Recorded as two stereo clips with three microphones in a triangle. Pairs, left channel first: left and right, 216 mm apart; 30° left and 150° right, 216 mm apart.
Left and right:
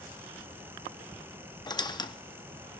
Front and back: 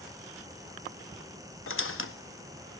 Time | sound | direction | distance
1.7 | a squeak | 20° left | 0.5 m